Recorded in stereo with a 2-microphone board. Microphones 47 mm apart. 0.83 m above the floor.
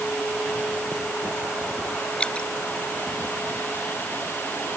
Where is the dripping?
20° left (ahead or behind).